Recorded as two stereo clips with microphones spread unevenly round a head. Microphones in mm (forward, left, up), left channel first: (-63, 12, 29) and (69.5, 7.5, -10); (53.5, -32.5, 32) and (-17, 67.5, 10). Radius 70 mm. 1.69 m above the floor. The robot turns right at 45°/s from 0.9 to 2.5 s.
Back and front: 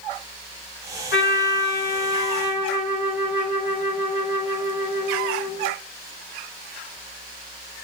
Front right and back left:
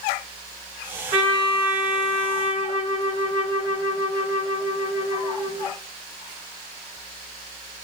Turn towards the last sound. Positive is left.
turn(degrees=-120)